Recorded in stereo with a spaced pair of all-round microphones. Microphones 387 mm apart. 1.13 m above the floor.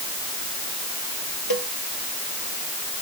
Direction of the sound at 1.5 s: 70° left (ahead or behind).